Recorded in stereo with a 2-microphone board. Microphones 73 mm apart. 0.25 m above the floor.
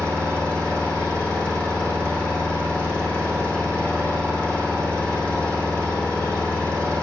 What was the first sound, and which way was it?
An engine running, 15° left (ahead or behind).